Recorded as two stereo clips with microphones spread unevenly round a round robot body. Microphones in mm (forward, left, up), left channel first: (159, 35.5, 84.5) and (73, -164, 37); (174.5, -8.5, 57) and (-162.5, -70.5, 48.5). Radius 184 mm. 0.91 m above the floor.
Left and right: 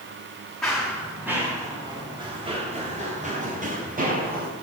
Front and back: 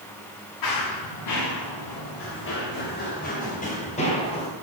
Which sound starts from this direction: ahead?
Running footsteps, at 0.6 s.